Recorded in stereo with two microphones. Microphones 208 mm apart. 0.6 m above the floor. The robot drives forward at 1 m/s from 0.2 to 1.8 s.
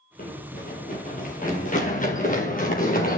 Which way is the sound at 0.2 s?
45° left (ahead or behind).